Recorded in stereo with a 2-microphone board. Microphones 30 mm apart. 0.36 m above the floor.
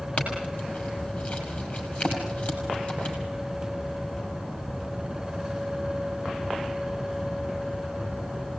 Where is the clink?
35° left (ahead or behind), 6.5 m.